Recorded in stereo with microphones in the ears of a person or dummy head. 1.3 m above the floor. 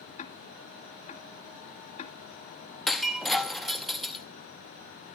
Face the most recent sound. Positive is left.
turn(degrees=0)  # may be behind; listen again after turning